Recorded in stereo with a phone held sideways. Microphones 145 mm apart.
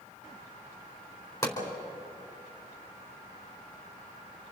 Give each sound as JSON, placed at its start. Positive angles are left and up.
{"t": 1.4, "sound": "a pop", "side_deg": 25, "distance_m": 4.0}